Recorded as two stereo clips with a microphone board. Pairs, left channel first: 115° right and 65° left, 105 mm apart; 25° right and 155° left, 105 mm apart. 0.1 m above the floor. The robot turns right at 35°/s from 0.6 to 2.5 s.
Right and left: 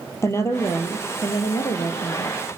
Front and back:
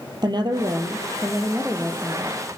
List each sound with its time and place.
0.2 s a woman speaking: 170° right, 3 m; by 2.4 s 105° right, 3 m